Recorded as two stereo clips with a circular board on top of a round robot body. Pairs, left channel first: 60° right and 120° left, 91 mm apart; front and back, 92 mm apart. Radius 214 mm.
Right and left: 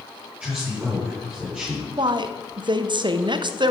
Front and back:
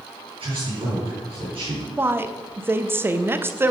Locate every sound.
0.4 s a man speaking: 160° right, 4.5 m
2.0 s a woman speaking: 120° left, 1.0 m